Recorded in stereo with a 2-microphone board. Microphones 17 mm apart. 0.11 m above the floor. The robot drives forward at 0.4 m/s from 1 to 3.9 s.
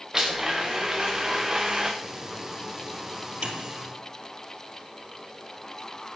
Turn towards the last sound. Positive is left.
turn(degrees=-55)  # may be behind; listen again after turning